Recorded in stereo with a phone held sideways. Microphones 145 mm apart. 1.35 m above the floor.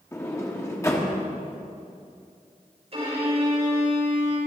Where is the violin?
45° right (ahead or behind), 6.5 m.